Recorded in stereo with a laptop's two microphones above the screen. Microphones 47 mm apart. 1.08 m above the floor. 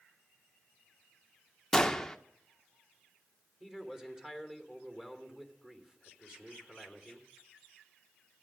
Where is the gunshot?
10° left (ahead or behind), 0.9 m.